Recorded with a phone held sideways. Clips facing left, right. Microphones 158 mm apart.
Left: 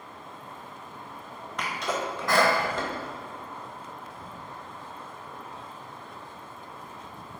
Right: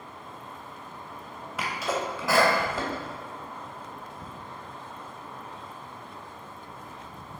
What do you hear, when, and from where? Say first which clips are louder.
1.6 s a sneeze: right 1 dB; 5° right (ahead or behind), 0.8 m